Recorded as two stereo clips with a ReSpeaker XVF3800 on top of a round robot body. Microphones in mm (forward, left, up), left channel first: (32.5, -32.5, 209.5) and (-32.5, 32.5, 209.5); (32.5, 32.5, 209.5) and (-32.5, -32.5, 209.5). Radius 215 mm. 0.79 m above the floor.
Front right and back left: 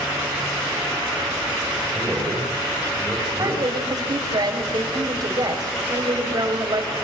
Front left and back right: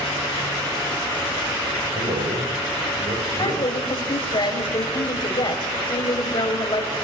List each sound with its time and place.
1.9 s a man speaking: 140° right, 6 m
3.4 s a woman speaking: 85° left, 6 m